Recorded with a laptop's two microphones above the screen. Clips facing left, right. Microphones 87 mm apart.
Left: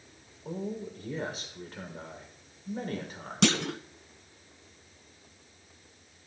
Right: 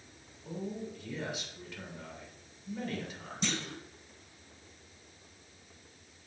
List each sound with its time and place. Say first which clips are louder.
0.5 s a man speaking: left 3 dB; 40° left (ahead or behind), 3 m
3.4 s a clunk: left 10 dB; 80° left, 0.6 m